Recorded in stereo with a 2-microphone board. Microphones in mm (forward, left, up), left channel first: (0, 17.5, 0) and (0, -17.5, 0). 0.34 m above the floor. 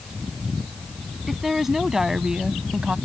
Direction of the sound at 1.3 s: 5° right (ahead or behind).